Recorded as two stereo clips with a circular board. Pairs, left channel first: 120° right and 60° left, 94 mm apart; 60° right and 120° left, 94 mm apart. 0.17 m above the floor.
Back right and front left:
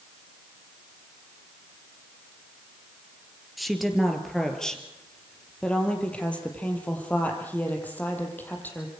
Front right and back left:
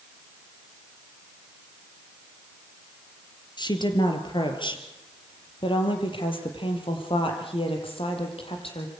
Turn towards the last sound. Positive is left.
turn(degrees=-50)